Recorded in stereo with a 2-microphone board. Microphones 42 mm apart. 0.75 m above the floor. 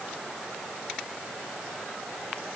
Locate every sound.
Only background noise.